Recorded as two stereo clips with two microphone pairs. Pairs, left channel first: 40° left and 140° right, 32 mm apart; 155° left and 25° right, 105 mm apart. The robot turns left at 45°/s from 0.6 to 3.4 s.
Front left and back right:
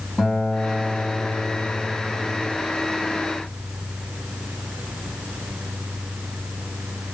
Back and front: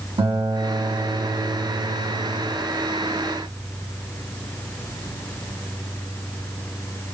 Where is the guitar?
45° right, 2.5 m; by 2.6 s 135° right, 2.5 m.